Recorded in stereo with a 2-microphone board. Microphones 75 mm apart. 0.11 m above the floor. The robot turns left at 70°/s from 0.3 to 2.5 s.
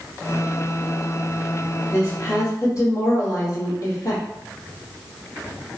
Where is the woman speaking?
115° left, 1.9 m; by 4.2 s 75° left, 1.9 m.